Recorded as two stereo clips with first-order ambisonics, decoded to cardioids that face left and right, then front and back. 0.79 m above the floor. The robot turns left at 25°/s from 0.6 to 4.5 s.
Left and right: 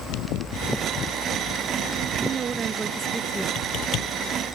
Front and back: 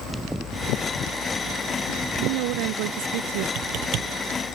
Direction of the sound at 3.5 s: 145° left.